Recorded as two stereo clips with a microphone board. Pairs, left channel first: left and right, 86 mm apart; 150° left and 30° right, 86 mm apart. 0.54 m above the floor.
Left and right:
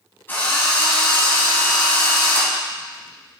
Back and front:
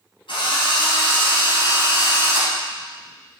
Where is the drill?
155° left, 3 m.